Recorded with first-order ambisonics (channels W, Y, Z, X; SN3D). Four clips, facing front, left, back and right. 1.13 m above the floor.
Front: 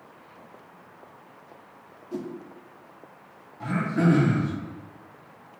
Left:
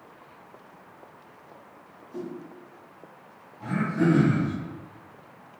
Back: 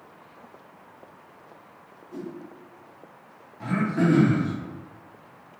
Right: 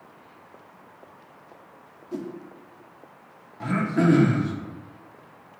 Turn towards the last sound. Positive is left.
turn(degrees=-90)